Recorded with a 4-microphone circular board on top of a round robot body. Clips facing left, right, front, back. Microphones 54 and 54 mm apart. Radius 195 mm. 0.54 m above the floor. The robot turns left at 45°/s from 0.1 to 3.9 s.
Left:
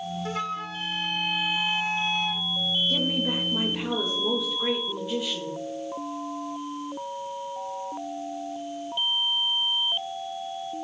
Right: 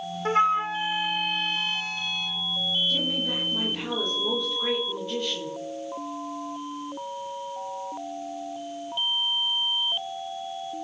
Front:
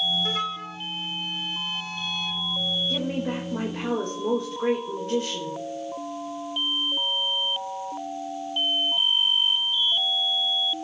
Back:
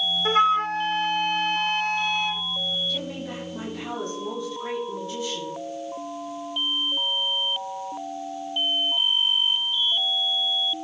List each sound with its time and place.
0.2 s a flute: 135° right, 0.6 m; by 2.4 s 125° left, 0.6 m
2.9 s a woman speaking: 55° left, 3.5 m; by 5.6 s 10° left, 3.5 m